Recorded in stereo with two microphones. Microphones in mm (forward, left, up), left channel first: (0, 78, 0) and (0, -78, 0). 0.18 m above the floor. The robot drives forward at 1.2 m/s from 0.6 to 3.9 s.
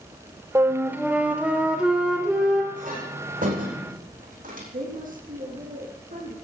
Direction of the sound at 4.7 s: 60° right (ahead or behind).